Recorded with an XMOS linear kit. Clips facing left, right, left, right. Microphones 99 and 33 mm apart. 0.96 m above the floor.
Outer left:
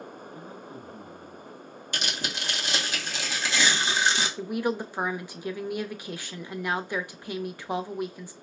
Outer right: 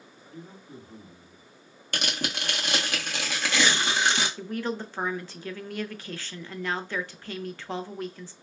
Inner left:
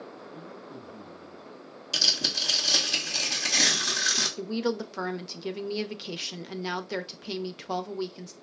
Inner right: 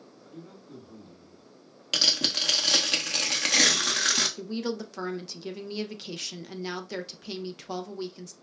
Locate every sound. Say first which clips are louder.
0.2 s a man speaking: outer left 4 dB, inner left 4 dB; 35° right (ahead or behind), 2.5 m
1.9 s tearing paper: outer right 2 dB, inner right 1 dB; 55° right (ahead or behind), 1.2 m
4.4 s a woman speaking: outer left 3 dB, inner left 3 dB; 15° left (ahead or behind), 0.5 m